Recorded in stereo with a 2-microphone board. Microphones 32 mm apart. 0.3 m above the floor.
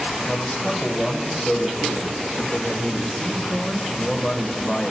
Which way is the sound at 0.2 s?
15° left (ahead or behind).